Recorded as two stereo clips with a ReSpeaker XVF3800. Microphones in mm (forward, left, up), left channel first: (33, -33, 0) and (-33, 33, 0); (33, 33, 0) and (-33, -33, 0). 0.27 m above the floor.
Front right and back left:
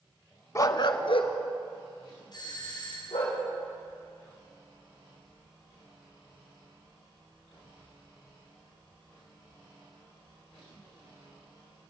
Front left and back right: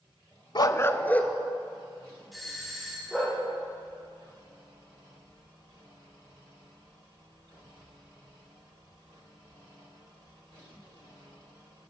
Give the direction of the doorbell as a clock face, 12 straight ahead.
1 o'clock.